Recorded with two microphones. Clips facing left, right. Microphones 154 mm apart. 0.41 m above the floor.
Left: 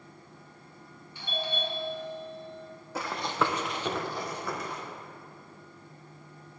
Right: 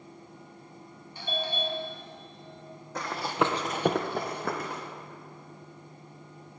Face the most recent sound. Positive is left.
turn(degrees=-55)  # may be behind; listen again after turning